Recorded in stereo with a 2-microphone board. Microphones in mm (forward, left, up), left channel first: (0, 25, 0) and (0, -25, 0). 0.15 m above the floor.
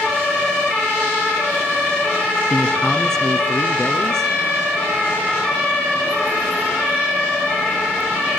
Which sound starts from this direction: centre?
A man speaking, at 2.5 s.